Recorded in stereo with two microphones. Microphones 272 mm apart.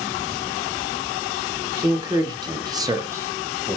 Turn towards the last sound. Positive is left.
turn(degrees=0)  # may be behind; listen again after turning